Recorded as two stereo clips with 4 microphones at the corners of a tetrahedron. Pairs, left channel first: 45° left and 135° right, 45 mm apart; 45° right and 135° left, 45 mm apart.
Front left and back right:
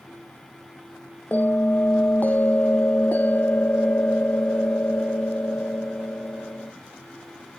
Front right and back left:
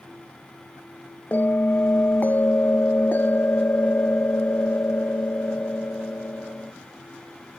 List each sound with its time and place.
1.3 s a bell: straight ahead